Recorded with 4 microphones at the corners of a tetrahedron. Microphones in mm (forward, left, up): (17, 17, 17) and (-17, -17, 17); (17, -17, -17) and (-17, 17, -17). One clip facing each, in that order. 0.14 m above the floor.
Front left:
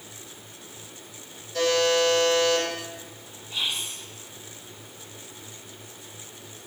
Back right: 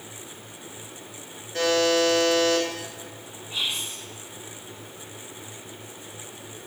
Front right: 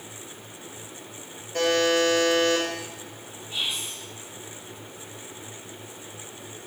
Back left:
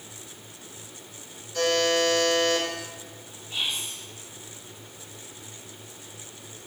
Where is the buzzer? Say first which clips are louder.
Back right 1 dB, front right 2 dB; 85° right, 1.3 m.